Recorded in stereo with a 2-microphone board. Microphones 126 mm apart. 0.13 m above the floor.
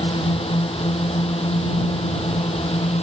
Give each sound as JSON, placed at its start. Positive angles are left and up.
{"t": 0.0, "sound": "a drone", "side_deg": 50}